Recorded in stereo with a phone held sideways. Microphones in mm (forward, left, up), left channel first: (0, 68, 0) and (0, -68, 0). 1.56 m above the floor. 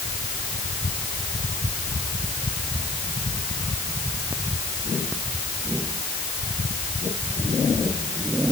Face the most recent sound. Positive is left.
No sound to turn to.